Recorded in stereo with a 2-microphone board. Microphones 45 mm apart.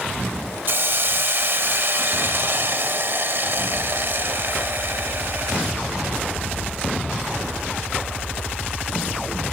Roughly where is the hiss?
Right.